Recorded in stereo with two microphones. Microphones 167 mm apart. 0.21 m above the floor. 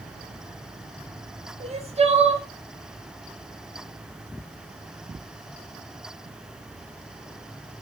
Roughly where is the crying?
Right.